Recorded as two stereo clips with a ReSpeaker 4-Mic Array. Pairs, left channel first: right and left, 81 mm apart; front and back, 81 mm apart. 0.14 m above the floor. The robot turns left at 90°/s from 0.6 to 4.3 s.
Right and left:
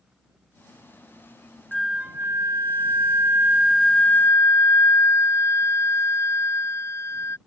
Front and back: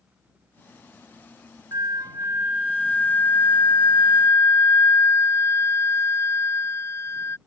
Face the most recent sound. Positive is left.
turn(degrees=-45)